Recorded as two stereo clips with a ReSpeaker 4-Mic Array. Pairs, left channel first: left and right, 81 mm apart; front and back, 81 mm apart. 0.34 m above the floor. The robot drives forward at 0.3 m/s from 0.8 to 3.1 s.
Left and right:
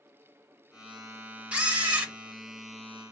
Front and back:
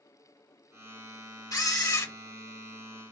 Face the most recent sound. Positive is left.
turn(degrees=-55)